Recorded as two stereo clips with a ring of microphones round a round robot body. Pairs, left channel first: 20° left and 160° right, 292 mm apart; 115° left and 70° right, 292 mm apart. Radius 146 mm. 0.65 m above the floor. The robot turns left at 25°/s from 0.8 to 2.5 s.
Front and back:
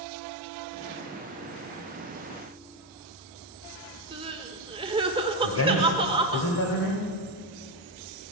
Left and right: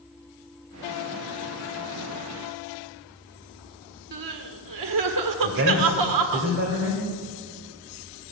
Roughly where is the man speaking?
Ahead.